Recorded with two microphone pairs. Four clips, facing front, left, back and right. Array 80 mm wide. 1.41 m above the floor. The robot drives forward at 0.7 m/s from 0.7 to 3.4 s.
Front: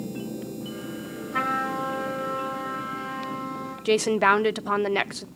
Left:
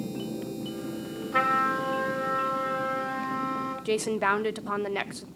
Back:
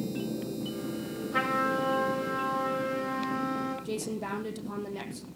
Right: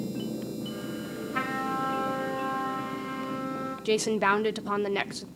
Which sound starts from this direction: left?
A trumpet, at 1.3 s.